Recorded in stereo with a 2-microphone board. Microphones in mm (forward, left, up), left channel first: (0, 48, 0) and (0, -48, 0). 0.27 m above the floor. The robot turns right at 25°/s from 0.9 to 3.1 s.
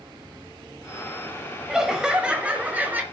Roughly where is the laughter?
Centre.